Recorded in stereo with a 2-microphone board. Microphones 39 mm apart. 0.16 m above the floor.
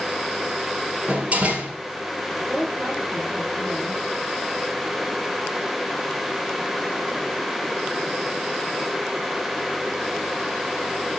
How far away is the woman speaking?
About 3 m.